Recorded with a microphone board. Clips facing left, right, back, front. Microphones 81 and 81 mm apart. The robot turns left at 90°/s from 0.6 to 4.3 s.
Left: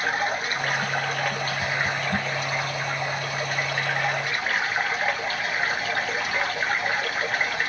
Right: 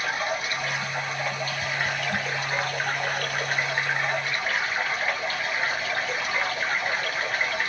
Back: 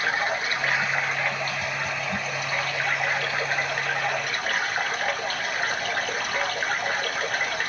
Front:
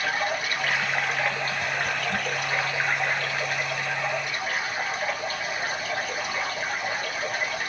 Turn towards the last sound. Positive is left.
turn(degrees=155)